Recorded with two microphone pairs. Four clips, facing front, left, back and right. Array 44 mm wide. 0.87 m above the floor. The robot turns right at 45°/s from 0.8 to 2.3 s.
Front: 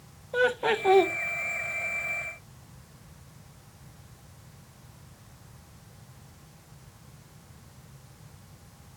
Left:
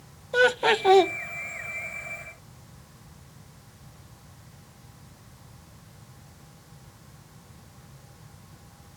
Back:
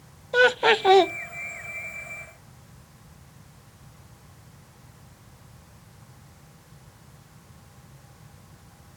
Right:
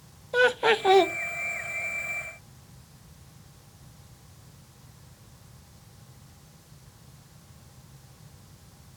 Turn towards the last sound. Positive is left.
turn(degrees=-110)